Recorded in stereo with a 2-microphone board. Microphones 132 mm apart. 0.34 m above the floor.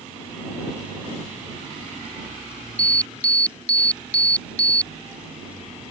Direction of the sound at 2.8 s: 10° left (ahead or behind).